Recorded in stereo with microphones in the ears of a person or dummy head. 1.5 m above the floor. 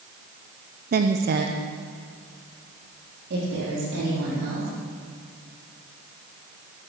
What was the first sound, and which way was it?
A woman speaking, 45° right (ahead or behind).